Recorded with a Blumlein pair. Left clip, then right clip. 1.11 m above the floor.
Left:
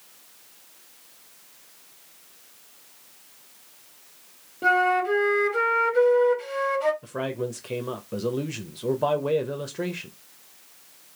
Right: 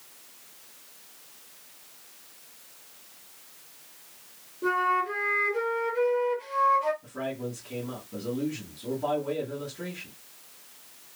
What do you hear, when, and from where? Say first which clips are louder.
4.6 s a flute: left 5 dB; 35° left, 1.0 m
7.0 s a man speaking: left 4 dB; 40° left, 0.8 m